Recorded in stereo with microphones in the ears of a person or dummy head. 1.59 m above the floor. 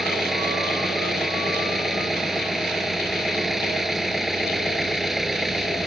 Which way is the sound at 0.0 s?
5° left (ahead or behind).